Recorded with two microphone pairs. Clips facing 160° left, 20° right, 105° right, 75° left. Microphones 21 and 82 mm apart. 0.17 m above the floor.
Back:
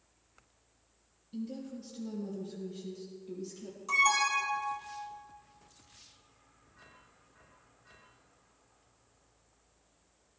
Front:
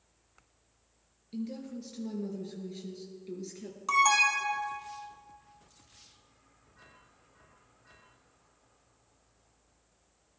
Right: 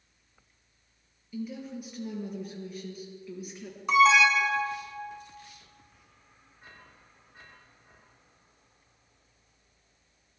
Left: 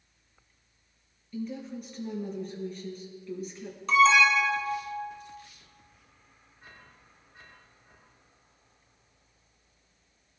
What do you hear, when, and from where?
1.3 s a woman speaking: 20° right, 3.5 m
3.9 s an alarm: 30° right, 2 m